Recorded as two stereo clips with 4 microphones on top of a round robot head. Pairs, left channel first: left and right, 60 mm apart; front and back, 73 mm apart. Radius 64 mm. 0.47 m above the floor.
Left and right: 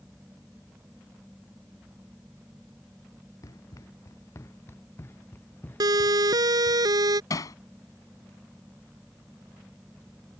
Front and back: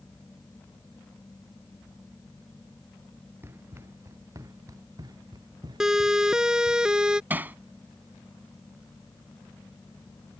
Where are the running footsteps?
120° left; by 6.8 s 160° left.